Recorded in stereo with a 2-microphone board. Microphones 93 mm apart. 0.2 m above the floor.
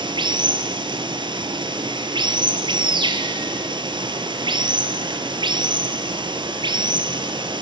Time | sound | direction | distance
0.0 | running water | 60° right (ahead or behind) | 1.1 m